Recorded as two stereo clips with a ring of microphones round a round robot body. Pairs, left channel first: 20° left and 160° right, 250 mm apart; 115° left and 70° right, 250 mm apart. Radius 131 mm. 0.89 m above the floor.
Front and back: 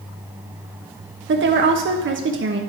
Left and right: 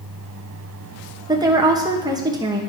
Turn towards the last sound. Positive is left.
turn(degrees=-140)